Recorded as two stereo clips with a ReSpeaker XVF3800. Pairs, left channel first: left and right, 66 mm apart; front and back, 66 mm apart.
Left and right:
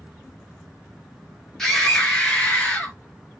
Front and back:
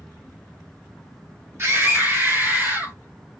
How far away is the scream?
About 2 m.